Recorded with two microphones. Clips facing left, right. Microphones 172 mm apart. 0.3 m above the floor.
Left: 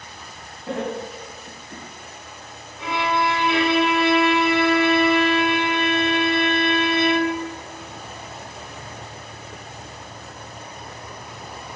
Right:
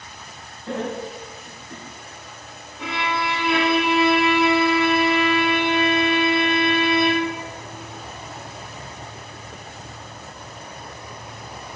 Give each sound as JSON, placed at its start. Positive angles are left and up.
{"t": 0.7, "sound": "laughter", "side_deg": 15, "distance_m": 1.3}
{"t": 2.8, "sound": "a violin", "side_deg": -70, "distance_m": 0.6}